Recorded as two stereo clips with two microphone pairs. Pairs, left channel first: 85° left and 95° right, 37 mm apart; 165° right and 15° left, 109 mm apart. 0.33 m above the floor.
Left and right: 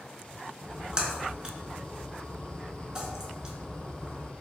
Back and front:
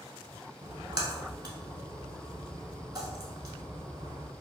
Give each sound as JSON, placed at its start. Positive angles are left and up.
{"t": 0.6, "sound": "a splash", "azimuth_deg": -30, "distance_m": 0.6}